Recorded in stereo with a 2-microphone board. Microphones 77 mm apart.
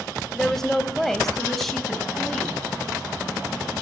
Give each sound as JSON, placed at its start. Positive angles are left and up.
{"t": 0.3, "sound": "a woman speaking", "side_deg": 5, "distance_m": 1.2}